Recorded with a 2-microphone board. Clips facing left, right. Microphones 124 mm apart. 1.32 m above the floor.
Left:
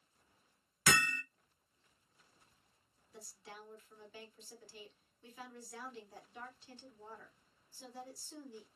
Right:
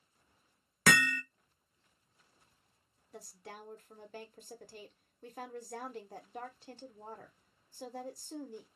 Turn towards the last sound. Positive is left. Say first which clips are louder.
# right 4 dB
turn(degrees=-60)  # may be behind; listen again after turning